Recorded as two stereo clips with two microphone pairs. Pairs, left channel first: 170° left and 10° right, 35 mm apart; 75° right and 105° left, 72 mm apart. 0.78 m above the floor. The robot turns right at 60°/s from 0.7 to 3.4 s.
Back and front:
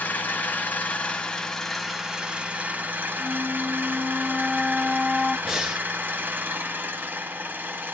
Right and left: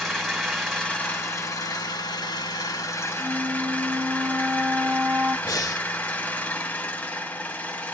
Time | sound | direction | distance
0.0 | an engine running | 165° right | 1.2 m
3.2 | a flute | 50° left | 0.8 m
5.5 | breathing | 90° right | 0.6 m